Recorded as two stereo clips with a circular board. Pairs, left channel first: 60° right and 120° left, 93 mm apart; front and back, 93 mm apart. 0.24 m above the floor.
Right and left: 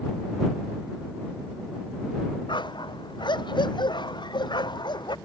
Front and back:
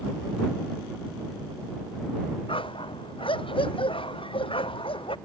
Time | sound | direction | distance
2.5 | a dog barking | 25° right | ?